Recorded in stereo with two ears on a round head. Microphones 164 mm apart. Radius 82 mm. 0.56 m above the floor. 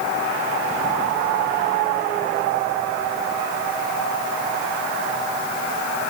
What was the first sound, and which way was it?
Only background noise.